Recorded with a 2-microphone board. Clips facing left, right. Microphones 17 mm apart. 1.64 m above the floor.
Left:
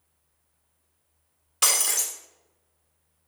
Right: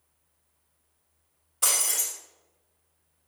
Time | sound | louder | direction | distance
1.6 | breaking glass | left 3 dB | 65° left (ahead or behind) | 3 m